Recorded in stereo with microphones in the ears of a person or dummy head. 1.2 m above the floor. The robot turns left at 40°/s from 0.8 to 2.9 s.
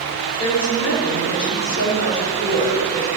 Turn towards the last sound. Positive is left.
turn(degrees=25)